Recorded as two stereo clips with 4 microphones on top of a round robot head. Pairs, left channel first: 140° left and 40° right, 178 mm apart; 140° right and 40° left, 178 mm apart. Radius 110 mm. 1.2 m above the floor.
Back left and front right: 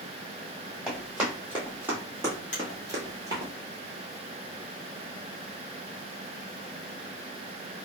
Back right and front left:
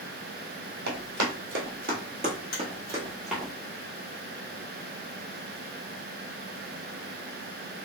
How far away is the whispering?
No whispering in this recording.